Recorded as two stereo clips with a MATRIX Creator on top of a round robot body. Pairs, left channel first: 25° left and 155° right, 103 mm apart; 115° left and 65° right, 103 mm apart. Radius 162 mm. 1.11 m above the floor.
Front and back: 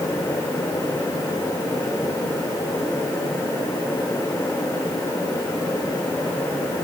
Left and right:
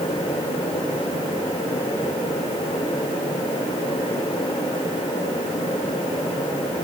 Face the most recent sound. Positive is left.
No sound to turn to.